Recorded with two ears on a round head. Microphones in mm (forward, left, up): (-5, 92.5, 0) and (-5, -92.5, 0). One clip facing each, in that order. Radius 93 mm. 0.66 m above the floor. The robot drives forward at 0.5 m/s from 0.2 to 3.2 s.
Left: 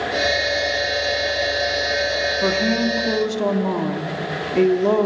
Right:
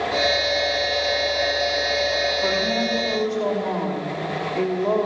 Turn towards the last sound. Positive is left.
turn(degrees=50)  # may be behind; listen again after turning